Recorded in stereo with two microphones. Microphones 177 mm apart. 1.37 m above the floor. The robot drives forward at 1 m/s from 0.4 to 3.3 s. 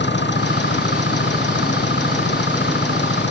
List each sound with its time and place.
0.0 s an engine running: 85° left